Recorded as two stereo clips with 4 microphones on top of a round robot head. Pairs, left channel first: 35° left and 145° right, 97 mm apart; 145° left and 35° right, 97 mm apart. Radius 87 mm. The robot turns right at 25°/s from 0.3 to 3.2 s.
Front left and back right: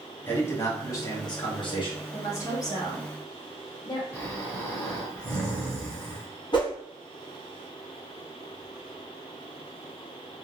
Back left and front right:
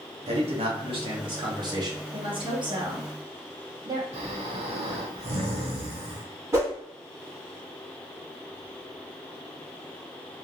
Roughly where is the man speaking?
Ahead right.